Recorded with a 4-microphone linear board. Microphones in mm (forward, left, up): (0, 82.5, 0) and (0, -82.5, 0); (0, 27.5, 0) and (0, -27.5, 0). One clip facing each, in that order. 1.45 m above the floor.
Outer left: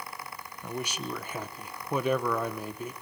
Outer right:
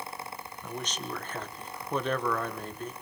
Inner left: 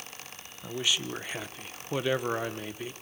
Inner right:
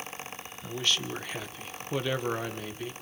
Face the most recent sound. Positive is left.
turn(degrees=10)  # may be behind; listen again after turning